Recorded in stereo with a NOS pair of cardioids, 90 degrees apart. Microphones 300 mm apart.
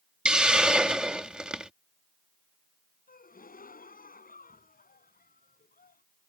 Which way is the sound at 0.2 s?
5° right.